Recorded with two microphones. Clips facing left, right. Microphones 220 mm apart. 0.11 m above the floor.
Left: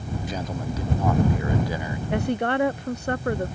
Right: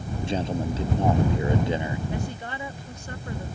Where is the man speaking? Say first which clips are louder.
Right 6 dB; 25° right (ahead or behind).